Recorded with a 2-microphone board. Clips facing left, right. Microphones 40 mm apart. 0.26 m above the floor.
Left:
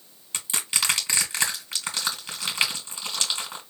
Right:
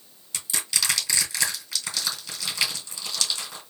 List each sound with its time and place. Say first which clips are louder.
0.3 s crushing: left 1 dB; 35° left (ahead or behind), 3 m